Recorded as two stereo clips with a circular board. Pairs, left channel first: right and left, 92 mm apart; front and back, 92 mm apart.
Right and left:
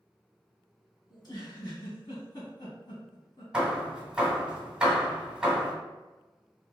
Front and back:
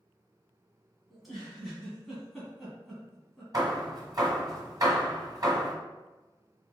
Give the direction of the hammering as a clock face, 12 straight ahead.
6 o'clock.